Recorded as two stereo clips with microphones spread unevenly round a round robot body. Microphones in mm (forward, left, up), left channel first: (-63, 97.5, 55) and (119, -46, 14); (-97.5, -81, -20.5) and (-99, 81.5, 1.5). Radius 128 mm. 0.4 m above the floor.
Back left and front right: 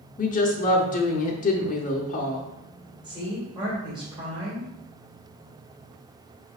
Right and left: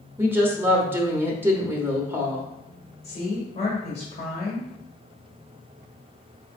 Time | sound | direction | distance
0.2 | a woman speaking | 170° left | 0.8 m
3.0 | a woman speaking | 85° right | 1.7 m